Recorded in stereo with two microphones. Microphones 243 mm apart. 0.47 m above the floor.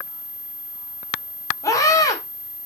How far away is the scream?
About 1.6 m.